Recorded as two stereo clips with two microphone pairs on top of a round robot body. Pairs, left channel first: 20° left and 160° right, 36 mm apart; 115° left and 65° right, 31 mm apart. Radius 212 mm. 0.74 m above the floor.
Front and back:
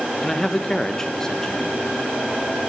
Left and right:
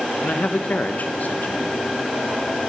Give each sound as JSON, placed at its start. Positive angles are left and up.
{"t": 0.2, "sound": "a man speaking", "azimuth_deg": 90, "distance_m": 0.9}